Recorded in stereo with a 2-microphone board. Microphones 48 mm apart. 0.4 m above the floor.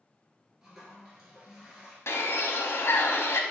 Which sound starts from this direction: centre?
A toilet flushing, at 0.6 s.